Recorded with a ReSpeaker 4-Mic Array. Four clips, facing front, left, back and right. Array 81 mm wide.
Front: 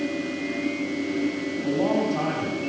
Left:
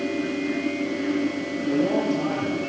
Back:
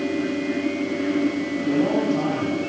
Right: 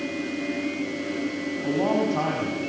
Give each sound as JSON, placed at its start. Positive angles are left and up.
{"t": 1.6, "sound": "a man speaking", "azimuth_deg": -75, "distance_m": 6.5}